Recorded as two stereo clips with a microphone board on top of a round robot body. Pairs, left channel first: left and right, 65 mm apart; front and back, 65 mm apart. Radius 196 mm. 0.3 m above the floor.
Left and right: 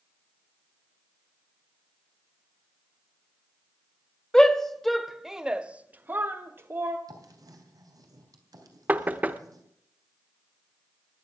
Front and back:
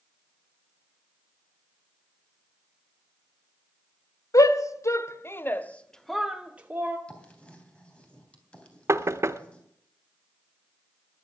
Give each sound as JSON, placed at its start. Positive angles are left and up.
{"t": 4.3, "sound": "a shout", "azimuth_deg": 10, "distance_m": 1.7}
{"t": 7.1, "sound": "writing", "azimuth_deg": -70, "distance_m": 3.5}
{"t": 8.9, "sound": "knocking", "azimuth_deg": -150, "distance_m": 1.0}